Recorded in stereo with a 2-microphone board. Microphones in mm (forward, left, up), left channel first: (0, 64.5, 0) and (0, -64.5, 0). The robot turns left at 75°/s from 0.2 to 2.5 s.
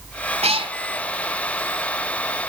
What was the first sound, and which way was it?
A cat meowing, 60° right (ahead or behind).